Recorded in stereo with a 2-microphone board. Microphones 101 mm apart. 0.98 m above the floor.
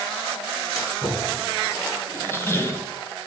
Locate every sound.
0.8 s a splash: 35° left (ahead or behind), 2.5 m
2.1 s a squeak: 25° left (ahead or behind), 0.8 m